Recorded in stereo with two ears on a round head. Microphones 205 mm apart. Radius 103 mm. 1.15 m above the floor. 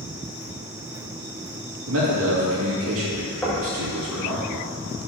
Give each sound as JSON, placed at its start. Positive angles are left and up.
{"t": 1.9, "sound": "a man speaking", "side_deg": -65, "distance_m": 2.0}
{"t": 3.4, "sound": "knocking", "side_deg": 10, "distance_m": 1.3}